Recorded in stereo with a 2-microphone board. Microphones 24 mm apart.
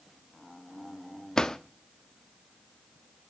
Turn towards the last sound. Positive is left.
turn(degrees=25)  # may be behind; listen again after turning